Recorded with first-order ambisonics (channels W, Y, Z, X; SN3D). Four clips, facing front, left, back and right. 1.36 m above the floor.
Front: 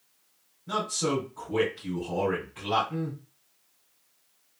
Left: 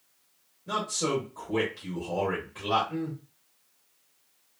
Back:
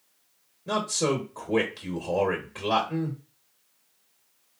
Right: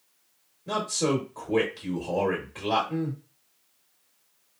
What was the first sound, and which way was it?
A man speaking, 160° right.